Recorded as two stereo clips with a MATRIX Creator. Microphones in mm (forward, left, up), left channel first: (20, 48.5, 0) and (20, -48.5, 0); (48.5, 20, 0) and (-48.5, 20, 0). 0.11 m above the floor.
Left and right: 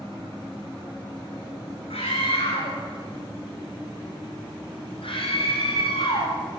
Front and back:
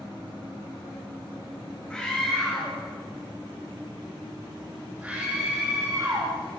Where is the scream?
80° left, 6 m; by 6.3 s 125° left, 3.5 m.